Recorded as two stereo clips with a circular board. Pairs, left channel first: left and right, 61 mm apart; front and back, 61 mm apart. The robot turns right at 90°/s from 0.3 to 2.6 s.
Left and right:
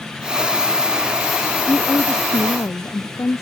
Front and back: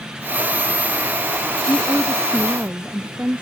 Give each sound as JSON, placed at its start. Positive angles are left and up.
{"t": 1.7, "sound": "a woman speaking", "azimuth_deg": 35}